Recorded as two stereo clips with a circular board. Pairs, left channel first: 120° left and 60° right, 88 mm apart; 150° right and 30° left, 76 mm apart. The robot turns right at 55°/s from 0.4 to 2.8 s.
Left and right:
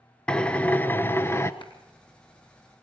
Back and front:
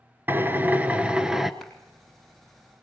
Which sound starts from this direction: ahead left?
A drill, at 0.3 s.